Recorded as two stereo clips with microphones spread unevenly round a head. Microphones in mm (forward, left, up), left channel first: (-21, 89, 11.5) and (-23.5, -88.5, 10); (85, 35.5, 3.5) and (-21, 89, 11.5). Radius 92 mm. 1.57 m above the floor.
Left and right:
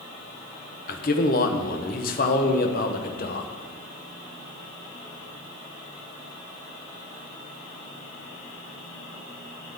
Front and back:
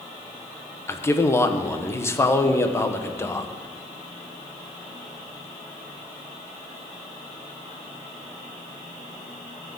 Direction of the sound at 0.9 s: 40° left.